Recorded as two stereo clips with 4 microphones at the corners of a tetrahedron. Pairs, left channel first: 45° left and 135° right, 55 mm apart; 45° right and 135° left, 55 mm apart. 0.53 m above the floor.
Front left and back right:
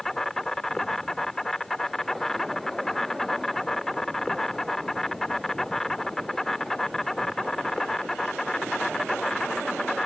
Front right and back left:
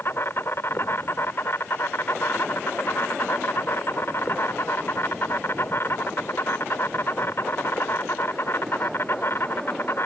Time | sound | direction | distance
0.0 | an insect | 35° right | ?